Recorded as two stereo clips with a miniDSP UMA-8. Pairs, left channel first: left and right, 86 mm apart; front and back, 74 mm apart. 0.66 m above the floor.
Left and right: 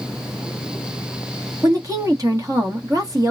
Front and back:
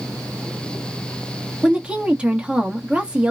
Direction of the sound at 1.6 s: 110° right.